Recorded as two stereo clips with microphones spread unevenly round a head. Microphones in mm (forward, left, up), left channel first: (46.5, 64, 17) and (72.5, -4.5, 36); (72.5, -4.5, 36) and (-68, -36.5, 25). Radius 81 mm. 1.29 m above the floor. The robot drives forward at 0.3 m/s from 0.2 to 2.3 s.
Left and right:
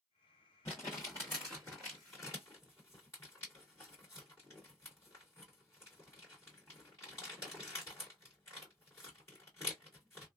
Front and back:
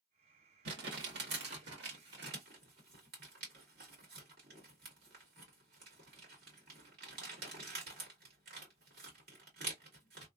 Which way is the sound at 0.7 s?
Straight behind.